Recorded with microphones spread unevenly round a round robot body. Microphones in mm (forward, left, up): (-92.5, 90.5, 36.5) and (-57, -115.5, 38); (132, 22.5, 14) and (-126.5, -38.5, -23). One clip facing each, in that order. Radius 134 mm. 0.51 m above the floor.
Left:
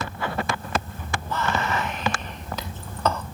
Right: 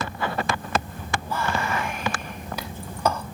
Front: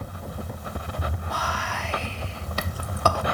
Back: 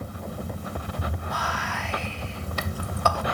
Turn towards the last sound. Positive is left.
turn(degrees=-10)